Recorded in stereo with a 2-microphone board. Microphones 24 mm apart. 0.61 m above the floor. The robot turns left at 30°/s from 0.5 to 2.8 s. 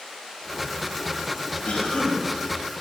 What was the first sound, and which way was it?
A cough, 60° left (ahead or behind).